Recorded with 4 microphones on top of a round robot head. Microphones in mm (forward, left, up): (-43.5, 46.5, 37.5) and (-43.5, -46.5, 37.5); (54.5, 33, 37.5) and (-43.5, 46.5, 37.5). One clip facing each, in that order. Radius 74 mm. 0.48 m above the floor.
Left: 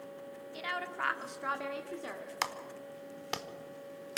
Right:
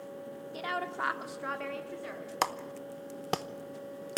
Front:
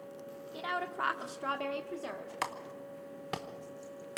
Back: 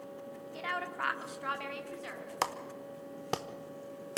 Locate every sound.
0.5 s a woman speaking: 75° right, 1.5 m; by 2.3 s 40° left, 2.0 m
2.4 s a clap: 130° right, 1.0 m